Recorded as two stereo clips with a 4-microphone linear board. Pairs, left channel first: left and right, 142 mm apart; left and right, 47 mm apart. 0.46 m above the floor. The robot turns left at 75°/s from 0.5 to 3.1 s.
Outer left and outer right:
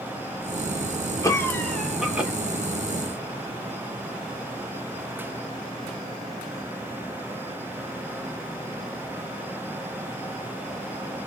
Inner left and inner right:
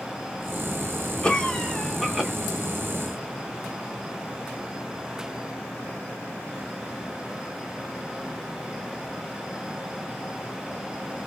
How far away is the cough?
About 0.8 m.